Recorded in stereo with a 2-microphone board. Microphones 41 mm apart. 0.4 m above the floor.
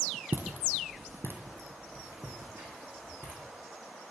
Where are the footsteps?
60° right (ahead or behind), 0.7 m; by 3.4 s 65° right (ahead or behind), 2.5 m.